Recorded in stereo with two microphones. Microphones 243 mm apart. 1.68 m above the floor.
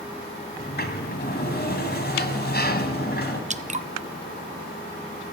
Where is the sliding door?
45° left (ahead or behind), 2 m.